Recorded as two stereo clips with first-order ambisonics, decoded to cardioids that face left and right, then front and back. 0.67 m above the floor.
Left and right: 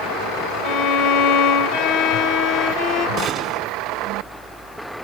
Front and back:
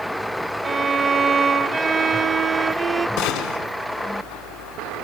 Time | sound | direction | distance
0.6 | a violin | 110° left | 0.7 m
3.2 | a gunshot | 15° right | 2.5 m